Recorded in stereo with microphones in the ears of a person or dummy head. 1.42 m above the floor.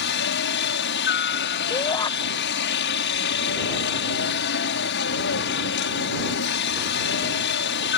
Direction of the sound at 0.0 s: 55° left (ahead or behind).